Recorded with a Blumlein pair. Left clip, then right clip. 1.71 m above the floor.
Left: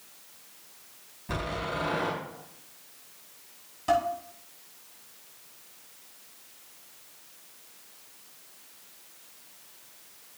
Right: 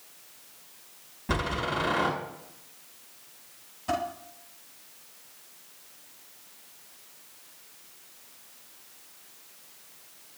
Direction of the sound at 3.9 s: 20° left.